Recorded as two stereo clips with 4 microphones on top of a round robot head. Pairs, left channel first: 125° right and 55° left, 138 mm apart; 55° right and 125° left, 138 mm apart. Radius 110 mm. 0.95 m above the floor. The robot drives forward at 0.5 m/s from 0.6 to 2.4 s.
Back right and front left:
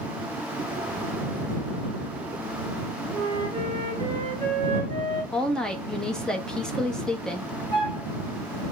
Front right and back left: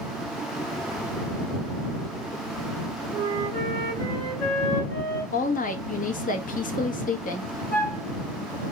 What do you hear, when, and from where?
3.1 s a flute: 5° left, 2.5 m
5.3 s a woman speaking: 40° right, 1.2 m
7.7 s a flute: 70° right, 0.7 m